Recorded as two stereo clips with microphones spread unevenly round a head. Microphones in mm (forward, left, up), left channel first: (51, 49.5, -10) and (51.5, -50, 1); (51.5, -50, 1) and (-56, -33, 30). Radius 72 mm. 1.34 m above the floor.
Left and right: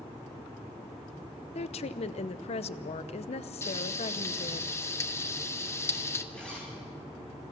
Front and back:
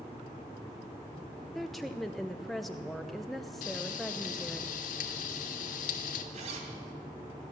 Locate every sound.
1.6 s a woman speaking: 80° left, 0.8 m
3.6 s frying: 25° left, 1.3 m
6.3 s a zipper: 175° left, 3 m